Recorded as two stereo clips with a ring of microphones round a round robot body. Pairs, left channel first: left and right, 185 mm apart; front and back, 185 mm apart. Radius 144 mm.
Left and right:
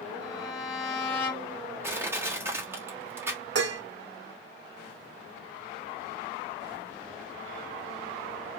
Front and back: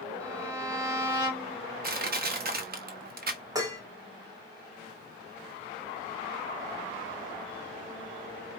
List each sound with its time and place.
0.2 s a violin: 110° left, 3 m
1.8 s crushing: 165° right, 1.6 m
3.5 s dishes clattering: 105° right, 1.1 m